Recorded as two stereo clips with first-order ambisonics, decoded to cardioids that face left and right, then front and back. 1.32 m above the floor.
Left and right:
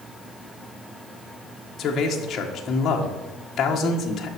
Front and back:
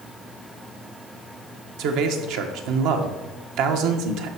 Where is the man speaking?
155° left, 1.2 m.